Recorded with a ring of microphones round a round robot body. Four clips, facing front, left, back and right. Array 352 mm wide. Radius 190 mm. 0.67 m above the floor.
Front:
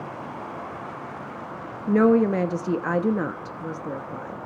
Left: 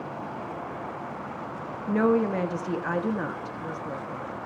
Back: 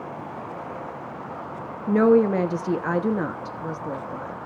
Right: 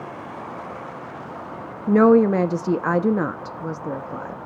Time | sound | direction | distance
1.9 | a woman speaking | 85° right | 1.2 m